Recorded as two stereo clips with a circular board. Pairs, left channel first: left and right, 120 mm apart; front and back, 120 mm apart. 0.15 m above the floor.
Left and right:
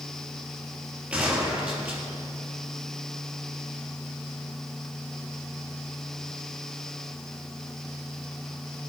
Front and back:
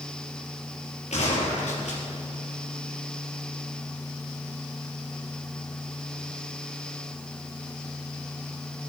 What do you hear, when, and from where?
1.1 s a gunshot: 10° right, 3.5 m